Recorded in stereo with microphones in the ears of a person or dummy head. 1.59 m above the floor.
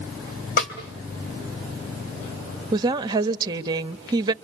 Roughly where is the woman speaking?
Right.